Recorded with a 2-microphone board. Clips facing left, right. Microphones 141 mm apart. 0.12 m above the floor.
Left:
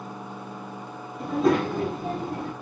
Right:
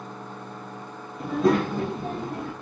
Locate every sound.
1.2 s a child speaking: centre (ahead or behind), 2.5 m; by 2.5 s 10° left (ahead or behind), 3.5 m